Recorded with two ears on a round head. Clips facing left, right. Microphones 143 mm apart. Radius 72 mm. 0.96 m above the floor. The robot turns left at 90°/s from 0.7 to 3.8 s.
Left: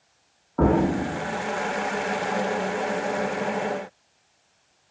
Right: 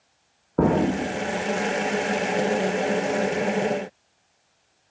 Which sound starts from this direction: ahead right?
An explosion, at 0.6 s.